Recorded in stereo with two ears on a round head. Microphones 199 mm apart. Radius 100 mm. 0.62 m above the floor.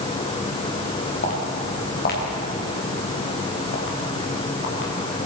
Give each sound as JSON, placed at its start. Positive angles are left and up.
{"t": 1.2, "sound": "footsteps", "side_deg": 40, "distance_m": 6.5}